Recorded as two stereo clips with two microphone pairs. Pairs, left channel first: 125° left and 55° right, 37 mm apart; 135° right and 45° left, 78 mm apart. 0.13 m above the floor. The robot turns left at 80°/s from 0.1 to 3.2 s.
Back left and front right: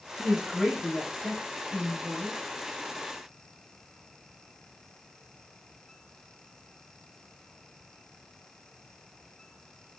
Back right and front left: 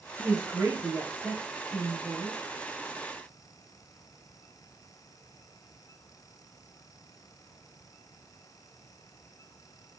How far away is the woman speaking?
About 1.7 m.